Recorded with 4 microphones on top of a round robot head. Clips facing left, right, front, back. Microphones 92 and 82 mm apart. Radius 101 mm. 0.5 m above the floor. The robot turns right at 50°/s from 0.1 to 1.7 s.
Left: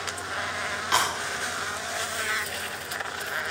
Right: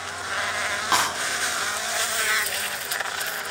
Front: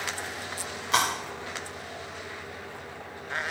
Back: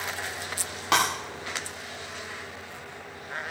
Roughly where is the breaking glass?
Behind right.